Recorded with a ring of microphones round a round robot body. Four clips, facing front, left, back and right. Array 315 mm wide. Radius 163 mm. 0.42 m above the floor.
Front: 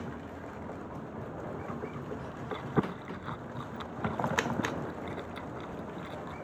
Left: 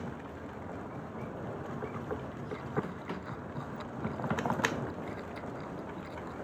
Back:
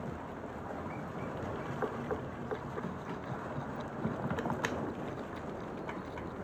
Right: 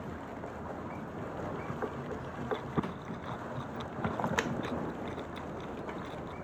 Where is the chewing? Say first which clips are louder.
Right 2 dB, front 9 dB; 10° right.